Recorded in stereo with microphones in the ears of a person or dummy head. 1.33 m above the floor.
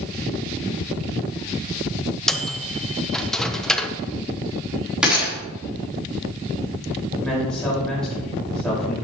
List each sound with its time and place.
2.3 s a microwave: 5° left (ahead or behind), 0.7 m
5.0 s a gunshot: 10° right (ahead or behind), 3.5 m
7.2 s a man speaking: centre (ahead or behind), 5 m